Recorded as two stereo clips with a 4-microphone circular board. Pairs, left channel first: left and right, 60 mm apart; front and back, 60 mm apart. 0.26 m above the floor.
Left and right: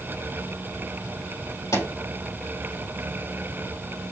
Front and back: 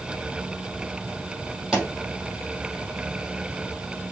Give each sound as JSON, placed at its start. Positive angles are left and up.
{"t": 1.7, "sound": "a pop", "azimuth_deg": 95, "distance_m": 4.5}